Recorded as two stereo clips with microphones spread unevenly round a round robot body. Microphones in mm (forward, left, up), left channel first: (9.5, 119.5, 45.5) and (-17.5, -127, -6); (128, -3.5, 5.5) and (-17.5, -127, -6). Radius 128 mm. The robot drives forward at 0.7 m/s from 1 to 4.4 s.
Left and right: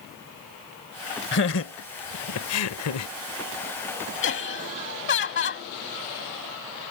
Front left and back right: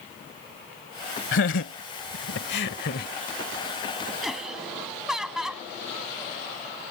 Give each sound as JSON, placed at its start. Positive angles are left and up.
{"t": 1.3, "sound": "laughter", "azimuth_deg": 35}
{"t": 4.2, "sound": "laughter", "azimuth_deg": 130}